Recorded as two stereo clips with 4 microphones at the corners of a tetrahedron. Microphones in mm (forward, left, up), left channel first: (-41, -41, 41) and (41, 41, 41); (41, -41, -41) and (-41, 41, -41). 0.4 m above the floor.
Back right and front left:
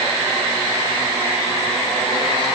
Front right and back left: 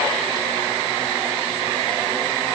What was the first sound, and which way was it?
Only background noise.